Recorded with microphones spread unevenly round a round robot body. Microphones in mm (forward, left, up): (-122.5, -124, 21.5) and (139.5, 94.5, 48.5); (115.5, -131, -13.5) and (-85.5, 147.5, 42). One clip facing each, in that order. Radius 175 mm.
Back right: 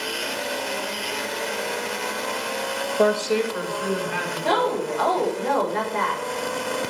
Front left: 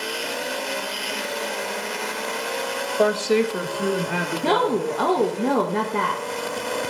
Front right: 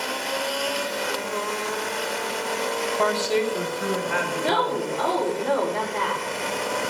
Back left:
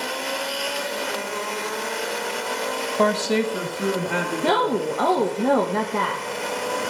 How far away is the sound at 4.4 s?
About 1.1 m.